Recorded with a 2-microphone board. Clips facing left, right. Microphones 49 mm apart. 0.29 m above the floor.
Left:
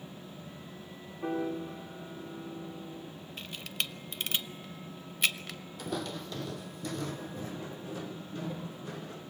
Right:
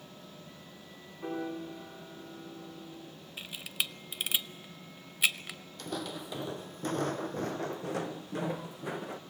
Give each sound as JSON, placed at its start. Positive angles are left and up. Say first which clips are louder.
{"t": 1.2, "sound": "a piano", "louder": "left 3 dB", "side_deg": 0, "distance_m": 7.0}
{"t": 3.4, "sound": "a camera shutter", "louder": "right 1 dB", "side_deg": -5, "distance_m": 0.5}
{"t": 5.8, "sound": "footsteps", "louder": "left 2 dB", "side_deg": 5, "distance_m": 0.8}